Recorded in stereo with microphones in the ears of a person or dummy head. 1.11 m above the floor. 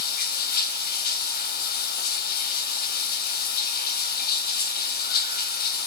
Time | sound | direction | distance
0.0 | running water | 50° left (ahead or behind) | 2 m